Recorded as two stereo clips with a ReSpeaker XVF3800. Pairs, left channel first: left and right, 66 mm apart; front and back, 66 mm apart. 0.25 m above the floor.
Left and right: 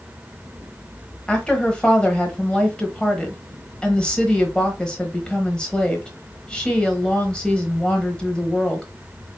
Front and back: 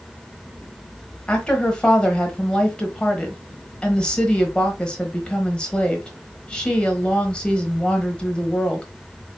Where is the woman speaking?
40° left, 1.0 m.